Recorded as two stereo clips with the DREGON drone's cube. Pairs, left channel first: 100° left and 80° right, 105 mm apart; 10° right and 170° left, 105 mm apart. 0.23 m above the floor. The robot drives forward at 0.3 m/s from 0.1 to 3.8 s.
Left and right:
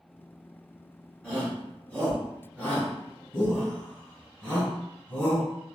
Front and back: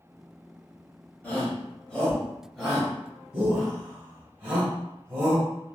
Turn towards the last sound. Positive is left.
turn(degrees=125)